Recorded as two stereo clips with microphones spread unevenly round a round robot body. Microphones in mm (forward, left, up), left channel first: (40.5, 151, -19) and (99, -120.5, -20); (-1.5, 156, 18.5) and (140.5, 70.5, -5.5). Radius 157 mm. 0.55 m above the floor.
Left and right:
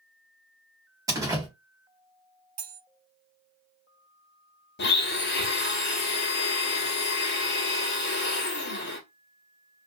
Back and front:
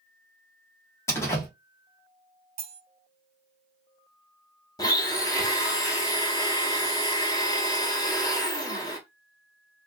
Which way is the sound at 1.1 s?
140° right.